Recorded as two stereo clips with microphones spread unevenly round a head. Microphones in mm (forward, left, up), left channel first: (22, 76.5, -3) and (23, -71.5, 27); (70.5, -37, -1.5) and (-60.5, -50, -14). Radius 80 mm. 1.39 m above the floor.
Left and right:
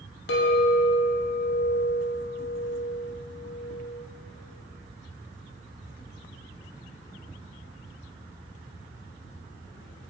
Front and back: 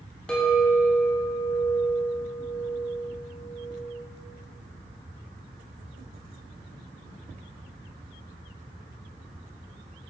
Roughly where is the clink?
Left.